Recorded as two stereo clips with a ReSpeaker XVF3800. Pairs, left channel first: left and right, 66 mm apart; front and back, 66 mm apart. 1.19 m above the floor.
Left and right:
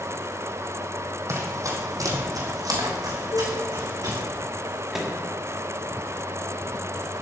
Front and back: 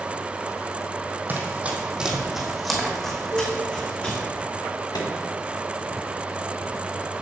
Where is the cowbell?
130° left, 1.2 m.